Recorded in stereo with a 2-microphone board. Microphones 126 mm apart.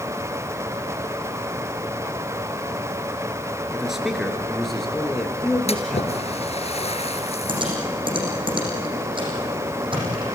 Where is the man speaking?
5° right (ahead or behind), 4 m; by 6.2 s 10° left (ahead or behind), 5.5 m.